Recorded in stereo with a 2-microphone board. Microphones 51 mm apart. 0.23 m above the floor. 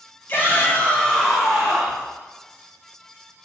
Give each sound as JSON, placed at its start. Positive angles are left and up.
{"t": 0.3, "sound": "a shout", "side_deg": 40, "distance_m": 1.3}